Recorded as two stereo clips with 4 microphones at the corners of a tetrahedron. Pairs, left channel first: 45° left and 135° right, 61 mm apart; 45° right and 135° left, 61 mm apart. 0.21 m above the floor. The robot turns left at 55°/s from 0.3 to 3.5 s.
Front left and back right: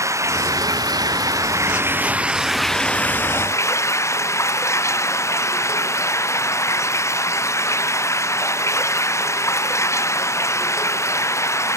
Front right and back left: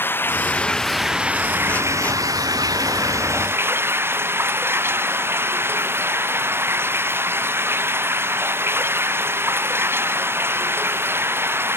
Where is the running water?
100° right; by 11.8 s 85° left.